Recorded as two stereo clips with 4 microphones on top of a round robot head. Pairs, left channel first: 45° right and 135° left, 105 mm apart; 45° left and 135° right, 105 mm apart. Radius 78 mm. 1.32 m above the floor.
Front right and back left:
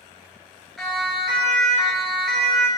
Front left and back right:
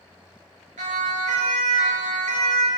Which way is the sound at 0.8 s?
135° right.